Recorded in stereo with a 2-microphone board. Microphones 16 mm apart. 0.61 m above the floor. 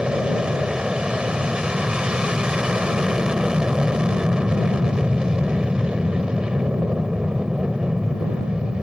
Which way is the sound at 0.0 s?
60° right (ahead or behind).